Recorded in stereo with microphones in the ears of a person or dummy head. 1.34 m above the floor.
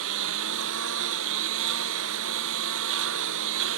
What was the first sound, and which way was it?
A lawn mower, 75° right (ahead or behind).